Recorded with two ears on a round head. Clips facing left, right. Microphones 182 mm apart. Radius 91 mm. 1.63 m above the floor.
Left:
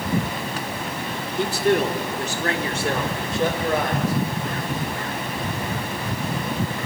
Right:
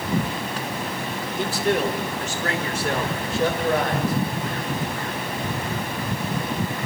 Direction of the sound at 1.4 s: 50° left (ahead or behind).